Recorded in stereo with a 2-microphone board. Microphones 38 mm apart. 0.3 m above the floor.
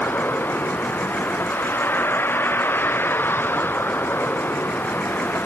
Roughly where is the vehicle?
Left.